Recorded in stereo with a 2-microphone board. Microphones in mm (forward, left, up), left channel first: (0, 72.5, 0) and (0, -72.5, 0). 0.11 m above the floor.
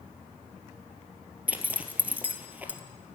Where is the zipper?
10° right (ahead or behind), 1.8 m.